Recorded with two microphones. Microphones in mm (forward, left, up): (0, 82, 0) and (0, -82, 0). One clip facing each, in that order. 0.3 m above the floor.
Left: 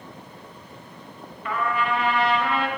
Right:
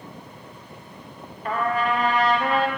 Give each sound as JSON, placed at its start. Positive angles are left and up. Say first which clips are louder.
{"t": 1.4, "sound": "a trumpet", "louder": "right 2 dB", "side_deg": -40, "distance_m": 0.8}